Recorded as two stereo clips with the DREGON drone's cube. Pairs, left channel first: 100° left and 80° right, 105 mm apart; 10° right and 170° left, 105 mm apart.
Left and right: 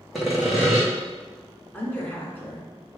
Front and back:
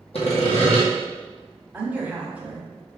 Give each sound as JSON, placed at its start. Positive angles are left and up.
{"t": 0.1, "sound": "sawing", "azimuth_deg": 10, "distance_m": 1.5}
{"t": 1.7, "sound": "a woman speaking", "azimuth_deg": 125, "distance_m": 1.2}